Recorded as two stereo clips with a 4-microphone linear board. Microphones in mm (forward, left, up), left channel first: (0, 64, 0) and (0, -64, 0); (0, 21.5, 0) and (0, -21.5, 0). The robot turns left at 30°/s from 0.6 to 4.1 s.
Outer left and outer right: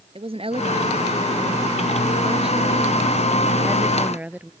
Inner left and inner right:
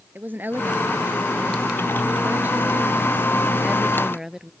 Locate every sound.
0.1 s a woman speaking: 60° right; by 4.5 s 165° right